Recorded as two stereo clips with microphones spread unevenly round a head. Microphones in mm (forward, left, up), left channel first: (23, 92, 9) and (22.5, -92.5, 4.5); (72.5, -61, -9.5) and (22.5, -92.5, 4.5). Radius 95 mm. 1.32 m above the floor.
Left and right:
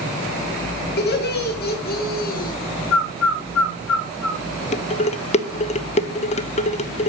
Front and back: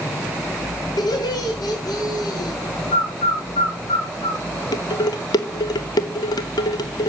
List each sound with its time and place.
1.0 s laughter: 55° left, 3 m; by 2.6 s 45° left, 2.0 m
2.9 s a bird: 75° left, 1.9 m
4.7 s dishes clattering: 35° left, 1.1 m